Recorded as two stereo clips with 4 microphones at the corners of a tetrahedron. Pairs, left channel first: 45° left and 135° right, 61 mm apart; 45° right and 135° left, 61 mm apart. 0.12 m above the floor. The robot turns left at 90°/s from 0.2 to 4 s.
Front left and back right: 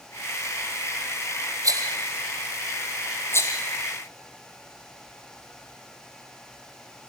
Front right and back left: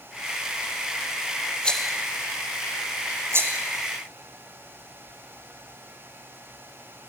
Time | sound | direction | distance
1.6 | a rattle | 115° right | 1.9 m